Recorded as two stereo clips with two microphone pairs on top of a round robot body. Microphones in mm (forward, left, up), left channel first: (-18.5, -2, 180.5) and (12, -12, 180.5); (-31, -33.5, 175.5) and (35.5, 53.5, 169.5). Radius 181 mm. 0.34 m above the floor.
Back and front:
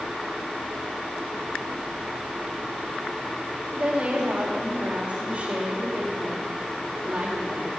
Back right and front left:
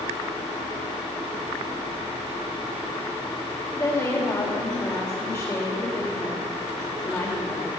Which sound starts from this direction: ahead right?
A woman speaking, at 3.7 s.